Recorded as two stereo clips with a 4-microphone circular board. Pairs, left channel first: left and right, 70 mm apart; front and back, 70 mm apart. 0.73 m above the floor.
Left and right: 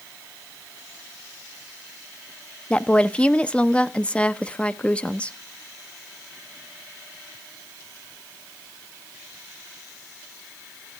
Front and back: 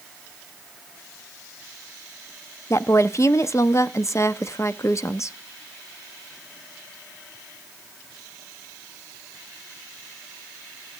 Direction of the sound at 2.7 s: 20° left.